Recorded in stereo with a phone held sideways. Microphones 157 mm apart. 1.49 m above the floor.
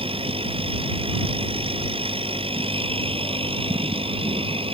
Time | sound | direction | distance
0.0 | a machine running | 35° right (ahead or behind) | ?